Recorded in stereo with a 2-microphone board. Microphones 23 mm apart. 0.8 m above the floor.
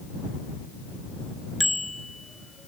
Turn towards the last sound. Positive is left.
turn(degrees=5)  # may be behind; listen again after turning